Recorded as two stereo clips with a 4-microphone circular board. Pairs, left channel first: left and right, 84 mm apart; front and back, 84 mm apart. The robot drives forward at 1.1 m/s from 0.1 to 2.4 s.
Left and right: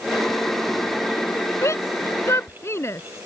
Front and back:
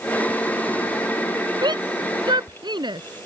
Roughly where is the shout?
Behind left.